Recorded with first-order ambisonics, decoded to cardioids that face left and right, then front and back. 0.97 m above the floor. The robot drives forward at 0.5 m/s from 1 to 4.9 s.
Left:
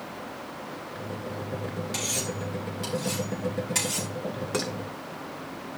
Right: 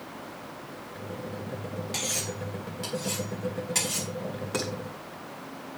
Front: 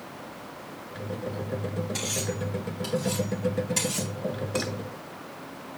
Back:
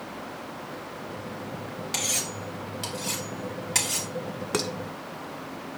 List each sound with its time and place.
1.9 s cutlery clinking: straight behind, 4 m
4.5 s dishes clattering: 175° left, 2 m